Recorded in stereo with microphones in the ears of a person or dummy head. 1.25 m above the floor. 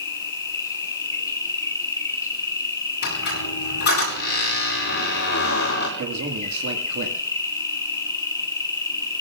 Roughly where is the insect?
Centre.